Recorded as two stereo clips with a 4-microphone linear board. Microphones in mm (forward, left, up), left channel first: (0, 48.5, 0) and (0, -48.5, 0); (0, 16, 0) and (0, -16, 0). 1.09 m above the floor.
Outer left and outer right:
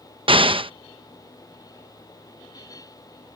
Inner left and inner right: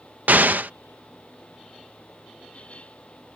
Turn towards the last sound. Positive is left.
turn(degrees=-60)  # may be behind; listen again after turning